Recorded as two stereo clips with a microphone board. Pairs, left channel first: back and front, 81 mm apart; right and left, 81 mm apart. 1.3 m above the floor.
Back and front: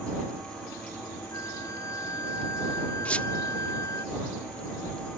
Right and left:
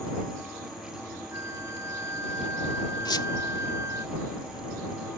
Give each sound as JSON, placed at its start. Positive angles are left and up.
{"t": 1.3, "sound": "a flute", "azimuth_deg": 140}
{"t": 3.0, "sound": "a squeak", "azimuth_deg": -105}